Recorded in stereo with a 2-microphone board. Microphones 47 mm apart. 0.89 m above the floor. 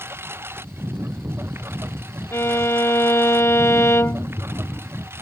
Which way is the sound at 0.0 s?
55° right (ahead or behind).